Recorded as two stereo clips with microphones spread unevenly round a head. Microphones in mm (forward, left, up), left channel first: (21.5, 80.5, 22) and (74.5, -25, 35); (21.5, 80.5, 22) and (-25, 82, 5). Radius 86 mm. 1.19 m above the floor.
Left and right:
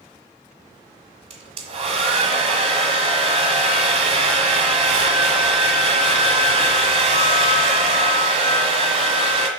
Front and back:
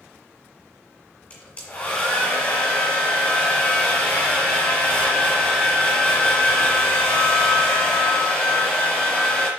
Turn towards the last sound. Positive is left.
turn(degrees=-40)